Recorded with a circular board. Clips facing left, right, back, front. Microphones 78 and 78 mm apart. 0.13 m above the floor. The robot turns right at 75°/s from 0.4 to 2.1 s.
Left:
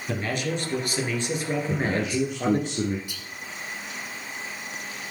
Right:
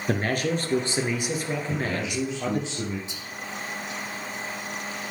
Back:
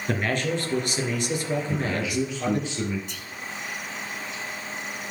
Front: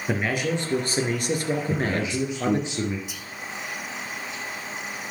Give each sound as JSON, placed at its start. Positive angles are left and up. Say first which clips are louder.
{"t": 0.1, "sound": "a man speaking", "louder": "right 3 dB, front 1 dB", "azimuth_deg": -75, "distance_m": 2.5}
{"t": 1.7, "sound": "a man speaking", "louder": "left 3 dB, front 1 dB", "azimuth_deg": 35, "distance_m": 2.0}
{"t": 3.1, "sound": "whispering", "louder": "right 2 dB, front 1 dB", "azimuth_deg": -75, "distance_m": 1.2}